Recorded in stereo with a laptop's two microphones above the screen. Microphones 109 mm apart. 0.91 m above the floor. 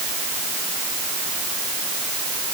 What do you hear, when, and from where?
Only background noise.